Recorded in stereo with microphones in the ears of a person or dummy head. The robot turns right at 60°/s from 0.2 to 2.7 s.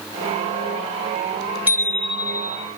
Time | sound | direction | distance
1.7 | a bicycle bell | 170° right | 4 m